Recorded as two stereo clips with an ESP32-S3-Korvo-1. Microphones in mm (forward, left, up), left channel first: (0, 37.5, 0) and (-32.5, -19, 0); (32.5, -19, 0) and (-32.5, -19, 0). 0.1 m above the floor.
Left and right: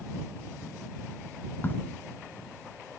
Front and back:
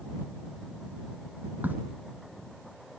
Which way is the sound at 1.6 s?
120° left.